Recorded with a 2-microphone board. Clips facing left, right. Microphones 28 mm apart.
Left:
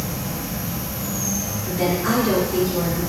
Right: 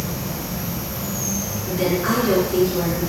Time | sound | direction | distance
0.0 | an insect | 15° right (ahead or behind) | 0.7 m
1.7 | a woman speaking | 30° right (ahead or behind) | 1.9 m